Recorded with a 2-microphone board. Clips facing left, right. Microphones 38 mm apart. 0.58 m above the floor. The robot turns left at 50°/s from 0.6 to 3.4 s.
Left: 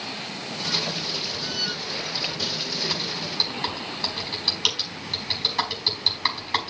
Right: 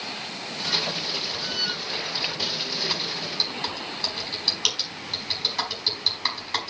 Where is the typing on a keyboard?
45° right (ahead or behind), 4.5 m; by 6.7 s 5° left (ahead or behind), 4.5 m.